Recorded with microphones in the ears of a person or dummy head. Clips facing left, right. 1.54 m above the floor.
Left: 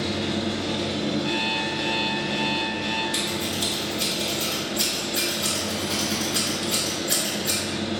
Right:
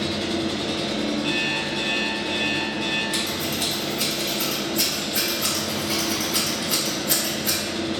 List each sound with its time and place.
0.0 s an engine running: 65° right (ahead or behind), 0.8 m
1.2 s an alarm clock: 60° right (ahead or behind), 1.2 m
3.1 s scissors: 50° right (ahead or behind), 1.6 m